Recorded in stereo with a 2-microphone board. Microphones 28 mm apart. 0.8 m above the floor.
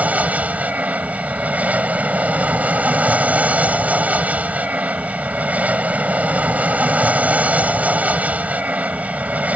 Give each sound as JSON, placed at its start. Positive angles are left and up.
{"t": 0.0, "sound": "an aircraft", "side_deg": -60}